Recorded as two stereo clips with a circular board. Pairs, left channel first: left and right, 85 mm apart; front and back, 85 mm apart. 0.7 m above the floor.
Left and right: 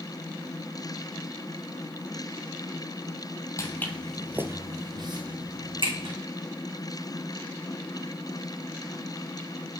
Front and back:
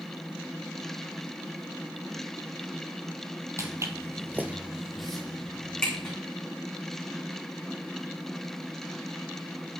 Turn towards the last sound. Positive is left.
turn(degrees=-80)